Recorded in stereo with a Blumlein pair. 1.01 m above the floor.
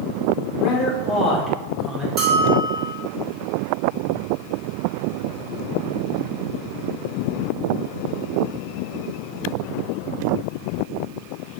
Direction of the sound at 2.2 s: 25° right.